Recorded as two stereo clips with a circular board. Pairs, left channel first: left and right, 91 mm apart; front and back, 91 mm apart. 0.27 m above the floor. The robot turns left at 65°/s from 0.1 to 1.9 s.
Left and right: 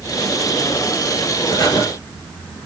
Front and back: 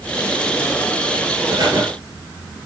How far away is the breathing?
About 5 m.